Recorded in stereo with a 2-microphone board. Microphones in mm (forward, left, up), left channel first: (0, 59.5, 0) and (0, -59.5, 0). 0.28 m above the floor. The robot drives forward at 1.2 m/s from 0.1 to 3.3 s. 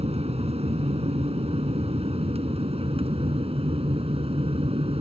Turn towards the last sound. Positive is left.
turn(degrees=-60)  # may be behind; listen again after turning